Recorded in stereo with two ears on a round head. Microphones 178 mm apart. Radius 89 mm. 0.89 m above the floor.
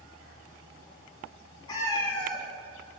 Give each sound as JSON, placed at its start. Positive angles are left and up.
{"t": 1.7, "sound": "a cat meowing", "side_deg": 20, "distance_m": 1.1}